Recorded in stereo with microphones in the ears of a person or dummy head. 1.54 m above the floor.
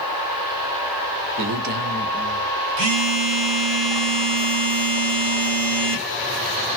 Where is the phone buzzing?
70° right (ahead or behind), 0.9 m.